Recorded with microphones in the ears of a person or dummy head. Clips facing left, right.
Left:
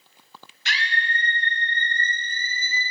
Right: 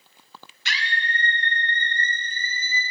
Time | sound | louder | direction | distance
0.7 | a scream | left 1 dB | 70° right (ahead or behind) | 1.6 m